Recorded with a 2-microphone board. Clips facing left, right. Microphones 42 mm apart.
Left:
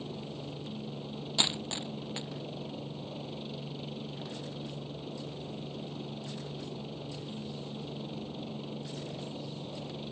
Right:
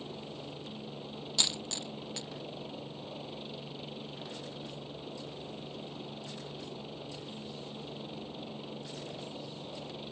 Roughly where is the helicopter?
Centre.